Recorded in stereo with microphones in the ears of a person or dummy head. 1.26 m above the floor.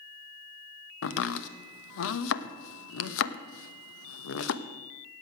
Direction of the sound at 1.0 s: 80° left.